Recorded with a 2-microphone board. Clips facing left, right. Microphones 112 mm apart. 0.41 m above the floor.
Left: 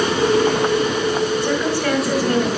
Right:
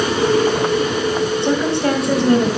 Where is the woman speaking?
25° right (ahead or behind), 2.0 m.